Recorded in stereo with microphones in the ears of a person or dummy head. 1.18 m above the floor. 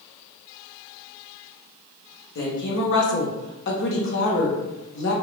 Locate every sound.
2.4 s a woman speaking: 60° left (ahead or behind), 0.8 m